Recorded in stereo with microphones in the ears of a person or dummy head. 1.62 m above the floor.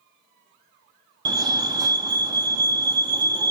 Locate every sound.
1.2 s a fire alarm: 20° right (ahead or behind), 0.5 m